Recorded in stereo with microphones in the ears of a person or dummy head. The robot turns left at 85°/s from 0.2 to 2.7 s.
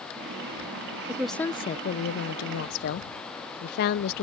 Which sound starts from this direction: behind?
A woman speaking, at 1.1 s.